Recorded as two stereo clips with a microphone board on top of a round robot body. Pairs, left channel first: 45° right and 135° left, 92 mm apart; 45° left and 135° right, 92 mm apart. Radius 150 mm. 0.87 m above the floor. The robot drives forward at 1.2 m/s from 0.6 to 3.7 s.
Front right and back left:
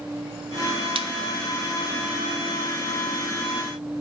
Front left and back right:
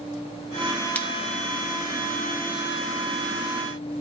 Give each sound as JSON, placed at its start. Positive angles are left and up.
{"t": 0.9, "sound": "a splash", "azimuth_deg": 115, "distance_m": 0.8}